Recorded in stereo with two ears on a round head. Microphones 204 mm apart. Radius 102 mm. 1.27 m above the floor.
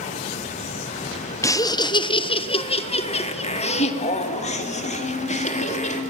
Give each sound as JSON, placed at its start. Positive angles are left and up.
{"t": 1.4, "sound": "laughter", "side_deg": 15, "distance_m": 0.8}